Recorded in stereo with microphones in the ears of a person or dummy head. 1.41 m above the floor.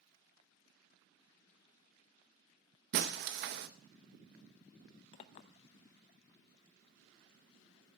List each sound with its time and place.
2.9 s breaking glass: 55° right (ahead or behind), 1.0 m
5.1 s a clink: 30° left (ahead or behind), 0.7 m